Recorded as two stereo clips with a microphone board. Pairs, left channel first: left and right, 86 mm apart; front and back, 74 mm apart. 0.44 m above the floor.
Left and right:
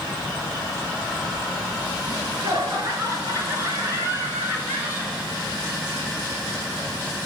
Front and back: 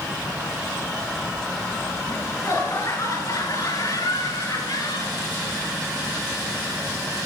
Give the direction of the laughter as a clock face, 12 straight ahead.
2 o'clock.